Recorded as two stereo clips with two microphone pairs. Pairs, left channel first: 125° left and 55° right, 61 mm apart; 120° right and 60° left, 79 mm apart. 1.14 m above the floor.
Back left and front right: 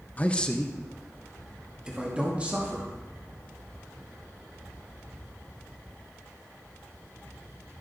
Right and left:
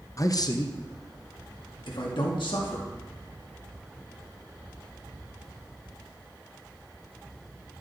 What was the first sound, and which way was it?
A man speaking, 170° right.